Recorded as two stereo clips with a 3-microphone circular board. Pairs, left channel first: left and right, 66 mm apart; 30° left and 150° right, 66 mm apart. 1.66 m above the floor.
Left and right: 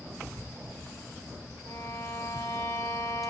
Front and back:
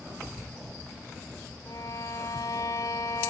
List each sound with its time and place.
1.6 s a violin: 55° left, 3 m